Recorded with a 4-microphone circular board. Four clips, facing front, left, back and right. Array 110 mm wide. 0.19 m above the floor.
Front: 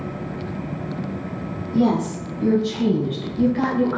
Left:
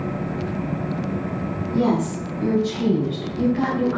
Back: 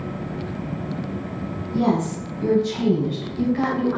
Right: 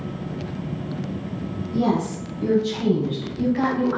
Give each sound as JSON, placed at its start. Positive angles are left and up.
{"t": 1.7, "sound": "a woman speaking", "azimuth_deg": 140, "distance_m": 1.6}